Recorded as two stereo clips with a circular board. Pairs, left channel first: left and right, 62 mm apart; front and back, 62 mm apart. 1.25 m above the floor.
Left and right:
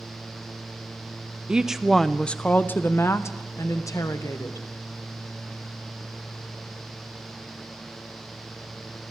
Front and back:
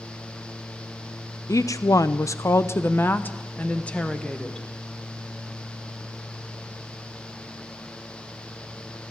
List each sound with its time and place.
1.5 s a woman speaking: 15° right, 0.8 m; by 4.7 s 80° left, 1.6 m